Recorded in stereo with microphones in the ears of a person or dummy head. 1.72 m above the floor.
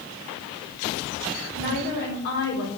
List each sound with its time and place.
1.5 s a woman speaking: 50° left (ahead or behind), 5.5 m